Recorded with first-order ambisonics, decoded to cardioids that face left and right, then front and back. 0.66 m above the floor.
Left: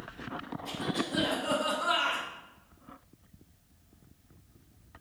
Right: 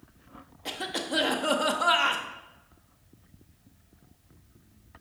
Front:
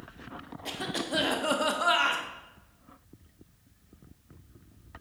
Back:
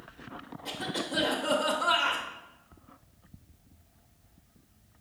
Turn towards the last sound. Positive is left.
turn(degrees=-60)